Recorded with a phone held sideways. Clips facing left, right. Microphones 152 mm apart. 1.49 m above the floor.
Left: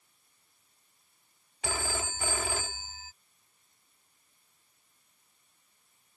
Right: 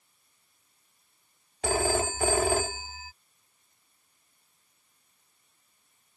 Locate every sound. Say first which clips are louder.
1.6 s a phone ringing: right 9 dB; 50° right (ahead or behind)